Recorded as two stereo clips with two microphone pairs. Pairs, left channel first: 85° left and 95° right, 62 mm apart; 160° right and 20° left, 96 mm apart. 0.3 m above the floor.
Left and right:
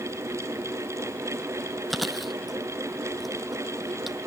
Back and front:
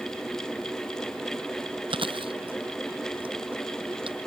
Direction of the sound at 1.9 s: 5° right.